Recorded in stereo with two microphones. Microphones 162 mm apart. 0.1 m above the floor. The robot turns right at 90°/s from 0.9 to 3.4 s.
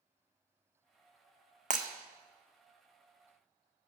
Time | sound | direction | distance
1.7 | breaking glass | 50° right (ahead or behind) | 0.7 m